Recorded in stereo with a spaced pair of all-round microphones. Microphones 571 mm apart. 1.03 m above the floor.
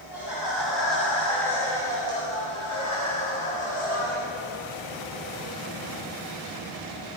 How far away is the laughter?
About 6.5 m.